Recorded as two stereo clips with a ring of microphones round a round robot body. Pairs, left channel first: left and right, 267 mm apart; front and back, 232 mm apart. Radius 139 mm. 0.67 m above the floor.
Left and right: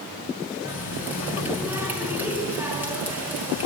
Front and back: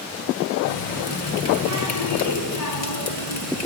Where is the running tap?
5° right, 6 m.